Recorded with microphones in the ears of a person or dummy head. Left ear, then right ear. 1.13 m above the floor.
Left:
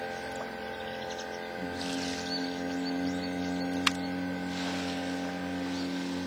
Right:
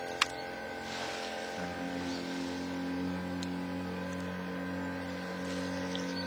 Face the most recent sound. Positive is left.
turn(degrees=-50)  # may be behind; listen again after turning